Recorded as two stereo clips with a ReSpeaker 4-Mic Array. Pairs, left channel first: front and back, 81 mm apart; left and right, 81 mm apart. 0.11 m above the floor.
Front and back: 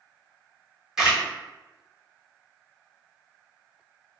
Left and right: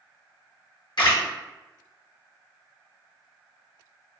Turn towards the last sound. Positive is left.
turn(degrees=95)